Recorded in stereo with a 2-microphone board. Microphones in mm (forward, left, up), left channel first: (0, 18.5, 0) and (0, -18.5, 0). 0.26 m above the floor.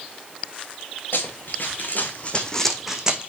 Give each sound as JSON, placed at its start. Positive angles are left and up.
{"t": 1.1, "sound": "running footsteps", "side_deg": 70, "distance_m": 1.9}